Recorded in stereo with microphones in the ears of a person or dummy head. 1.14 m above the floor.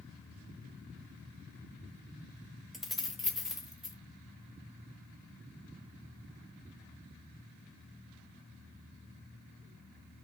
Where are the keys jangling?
Centre (ahead or behind), 1.0 m; by 4.0 s 5° right (ahead or behind), 1.9 m.